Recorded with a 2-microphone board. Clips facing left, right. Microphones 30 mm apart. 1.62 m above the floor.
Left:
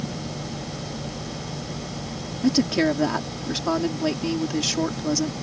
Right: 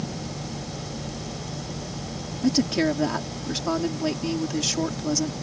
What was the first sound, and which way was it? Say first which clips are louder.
A woman speaking: left 2 dB; 10° left (ahead or behind).